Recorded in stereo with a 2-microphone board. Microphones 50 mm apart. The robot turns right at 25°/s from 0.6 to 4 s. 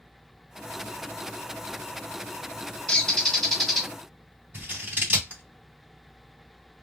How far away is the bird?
About 1.4 m.